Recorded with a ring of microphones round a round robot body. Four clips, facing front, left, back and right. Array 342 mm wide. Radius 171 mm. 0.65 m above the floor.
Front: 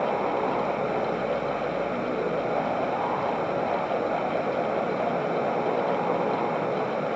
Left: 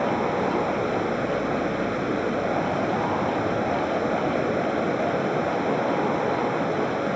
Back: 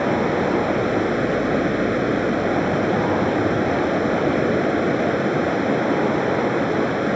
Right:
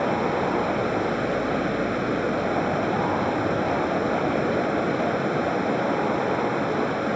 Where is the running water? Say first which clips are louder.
Even, back 5 dB; 175° right.